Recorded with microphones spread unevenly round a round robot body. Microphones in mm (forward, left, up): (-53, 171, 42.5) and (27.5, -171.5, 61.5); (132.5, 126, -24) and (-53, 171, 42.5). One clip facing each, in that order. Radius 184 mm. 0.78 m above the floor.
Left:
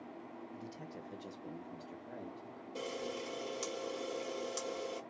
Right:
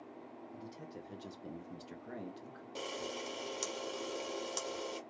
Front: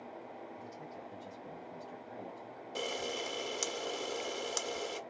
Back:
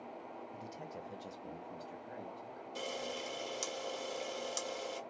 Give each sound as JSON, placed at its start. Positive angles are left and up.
{"t": 0.5, "sound": "a man speaking", "azimuth_deg": 165, "distance_m": 1.0}
{"t": 2.8, "sound": "a camera shutter", "azimuth_deg": 0, "distance_m": 1.0}